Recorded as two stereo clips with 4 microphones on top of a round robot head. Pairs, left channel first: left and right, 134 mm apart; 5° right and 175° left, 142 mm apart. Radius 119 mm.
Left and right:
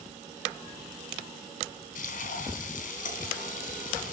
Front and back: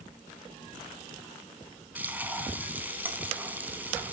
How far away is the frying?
About 3 m.